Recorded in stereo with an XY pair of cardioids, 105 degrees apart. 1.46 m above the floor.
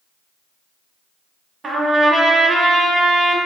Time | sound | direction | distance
1.6 | a trumpet | 35° right | 0.9 m